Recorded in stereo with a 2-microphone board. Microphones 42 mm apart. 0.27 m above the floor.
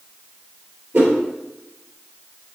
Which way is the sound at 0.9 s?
55° right (ahead or behind).